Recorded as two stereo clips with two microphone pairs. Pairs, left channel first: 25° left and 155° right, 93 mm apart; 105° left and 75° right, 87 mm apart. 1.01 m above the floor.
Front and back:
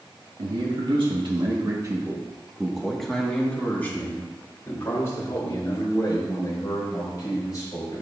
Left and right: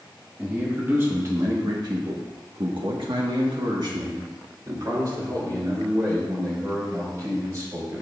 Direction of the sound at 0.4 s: 145° right.